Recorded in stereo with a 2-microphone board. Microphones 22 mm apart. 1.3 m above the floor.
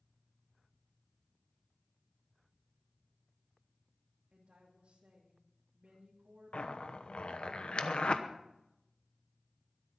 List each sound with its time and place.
4.3 s a woman speaking: 65° right (ahead or behind), 2.5 m
6.5 s a zipper: 55° left (ahead or behind), 0.9 m